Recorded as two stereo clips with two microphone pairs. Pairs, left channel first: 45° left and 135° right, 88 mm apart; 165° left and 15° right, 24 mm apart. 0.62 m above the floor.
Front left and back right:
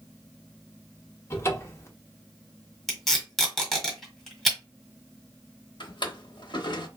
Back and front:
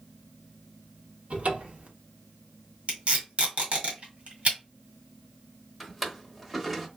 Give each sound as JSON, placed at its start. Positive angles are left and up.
{"t": 1.3, "sound": "a cupboard door", "azimuth_deg": -10, "distance_m": 0.8}
{"t": 2.9, "sound": "tape being pulled", "azimuth_deg": -45, "distance_m": 1.6}
{"t": 5.8, "sound": "a drawer", "azimuth_deg": 75, "distance_m": 0.7}